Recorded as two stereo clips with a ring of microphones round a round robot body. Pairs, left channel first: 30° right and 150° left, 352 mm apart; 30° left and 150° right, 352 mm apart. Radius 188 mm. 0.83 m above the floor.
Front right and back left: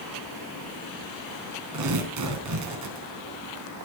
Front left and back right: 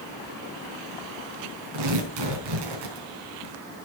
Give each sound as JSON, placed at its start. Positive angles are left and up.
{"t": 1.7, "sound": "tearing paper", "azimuth_deg": -170, "distance_m": 4.5}